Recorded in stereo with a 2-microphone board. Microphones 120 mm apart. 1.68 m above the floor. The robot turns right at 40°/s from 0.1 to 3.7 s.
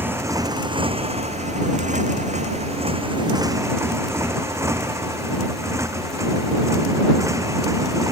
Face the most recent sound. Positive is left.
turn(degrees=-25)  # may be behind; listen again after turning